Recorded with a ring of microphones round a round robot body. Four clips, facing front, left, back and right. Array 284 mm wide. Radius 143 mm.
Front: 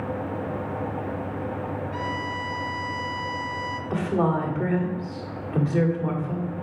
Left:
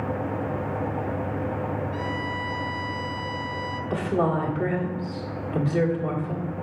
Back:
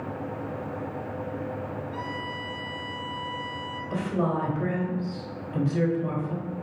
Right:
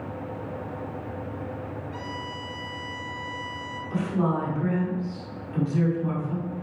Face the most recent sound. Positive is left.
turn(degrees=30)